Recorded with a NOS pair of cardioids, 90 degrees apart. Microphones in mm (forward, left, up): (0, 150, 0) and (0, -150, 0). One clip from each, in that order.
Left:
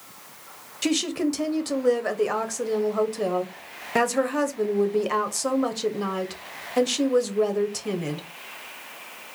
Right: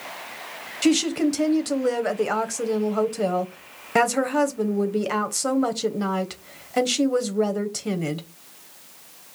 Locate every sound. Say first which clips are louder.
0.8 s a woman speaking: right 4 dB; 10° right, 0.9 m